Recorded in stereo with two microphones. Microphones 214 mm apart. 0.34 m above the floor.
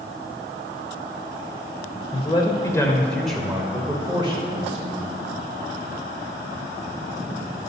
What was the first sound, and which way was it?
A man speaking, 25° left (ahead or behind).